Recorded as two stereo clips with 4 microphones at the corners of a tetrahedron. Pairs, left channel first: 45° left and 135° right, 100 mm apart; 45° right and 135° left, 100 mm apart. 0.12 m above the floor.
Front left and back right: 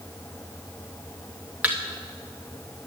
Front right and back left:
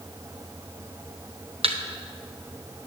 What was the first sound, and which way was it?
A thud, 150° left.